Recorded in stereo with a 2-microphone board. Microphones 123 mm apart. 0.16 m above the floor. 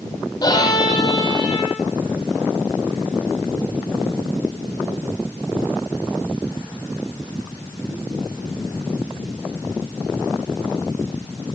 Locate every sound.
0.4 s a violin: 35° left (ahead or behind), 6 m